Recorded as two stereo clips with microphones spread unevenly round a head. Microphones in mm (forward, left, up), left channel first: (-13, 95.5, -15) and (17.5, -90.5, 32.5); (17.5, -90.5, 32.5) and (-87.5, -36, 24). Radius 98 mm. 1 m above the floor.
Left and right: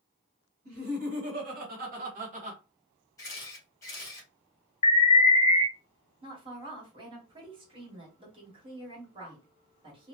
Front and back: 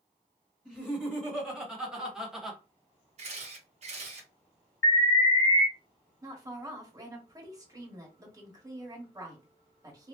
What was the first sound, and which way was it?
Laughter, 125° right.